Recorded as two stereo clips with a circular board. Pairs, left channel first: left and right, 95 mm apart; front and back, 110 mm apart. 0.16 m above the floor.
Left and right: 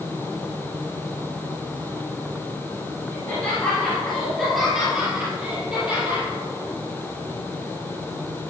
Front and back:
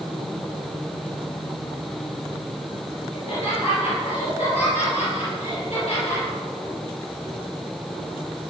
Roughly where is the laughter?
Ahead.